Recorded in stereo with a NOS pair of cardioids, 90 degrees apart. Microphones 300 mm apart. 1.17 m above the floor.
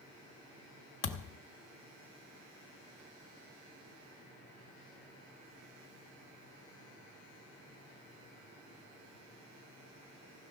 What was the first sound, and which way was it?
A thud, 65° left.